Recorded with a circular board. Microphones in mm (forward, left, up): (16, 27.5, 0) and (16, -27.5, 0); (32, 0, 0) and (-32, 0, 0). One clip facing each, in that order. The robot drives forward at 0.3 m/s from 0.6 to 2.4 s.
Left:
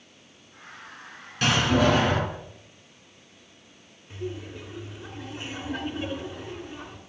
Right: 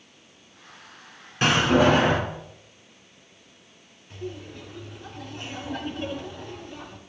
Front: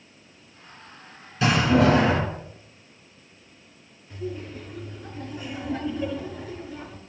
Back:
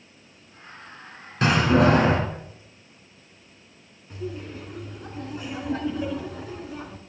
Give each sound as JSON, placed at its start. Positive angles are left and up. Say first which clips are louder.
{"t": 1.4, "sound": "a door slam", "louder": "right 3 dB, even", "azimuth_deg": -150, "distance_m": 2.5}
{"t": 4.1, "sound": "laughter", "louder": "left 1 dB, even", "azimuth_deg": 165, "distance_m": 2.5}